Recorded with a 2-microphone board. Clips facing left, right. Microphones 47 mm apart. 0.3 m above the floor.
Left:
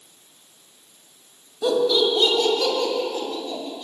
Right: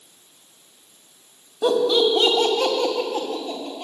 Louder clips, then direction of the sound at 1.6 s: Right 1 dB; 25° right (ahead or behind).